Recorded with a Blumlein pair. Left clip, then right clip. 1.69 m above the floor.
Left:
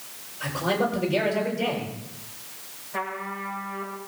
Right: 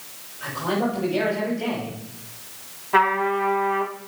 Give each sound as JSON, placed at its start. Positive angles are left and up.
{"t": 0.4, "sound": "a man speaking", "azimuth_deg": 25, "distance_m": 8.5}
{"t": 2.9, "sound": "a trumpet", "azimuth_deg": -45, "distance_m": 3.5}